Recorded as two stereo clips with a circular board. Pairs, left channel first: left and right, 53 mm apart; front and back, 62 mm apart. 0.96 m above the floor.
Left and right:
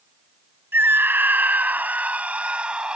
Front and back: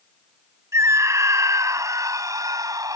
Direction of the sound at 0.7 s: 140° right.